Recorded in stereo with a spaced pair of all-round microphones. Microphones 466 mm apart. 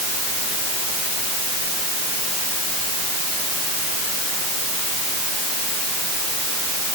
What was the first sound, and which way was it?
Only background noise.